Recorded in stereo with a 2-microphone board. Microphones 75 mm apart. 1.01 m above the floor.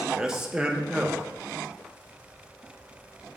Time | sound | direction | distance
0.1 | a man speaking | 10° right (ahead or behind) | 0.9 m